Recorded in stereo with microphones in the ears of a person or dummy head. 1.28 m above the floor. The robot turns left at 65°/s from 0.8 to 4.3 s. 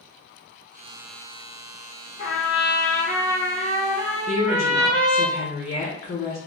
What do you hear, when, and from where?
2.2 s a trumpet: 55° left, 0.8 m; by 5.3 s 80° right, 0.8 m
4.3 s a woman speaking: 45° left (ahead or behind), 1.5 m